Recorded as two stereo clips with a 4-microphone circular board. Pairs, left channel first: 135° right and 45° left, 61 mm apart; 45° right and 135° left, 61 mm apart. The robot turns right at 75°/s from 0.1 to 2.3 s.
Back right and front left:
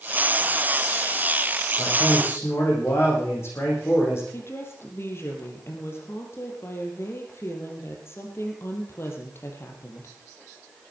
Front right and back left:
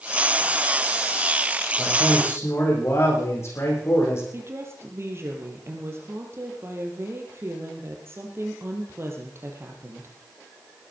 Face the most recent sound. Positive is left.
turn(degrees=180)